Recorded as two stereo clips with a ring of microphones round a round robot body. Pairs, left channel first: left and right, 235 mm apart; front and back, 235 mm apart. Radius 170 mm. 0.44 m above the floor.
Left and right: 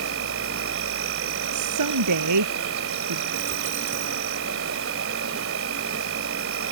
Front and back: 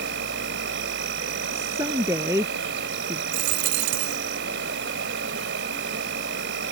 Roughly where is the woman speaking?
Right.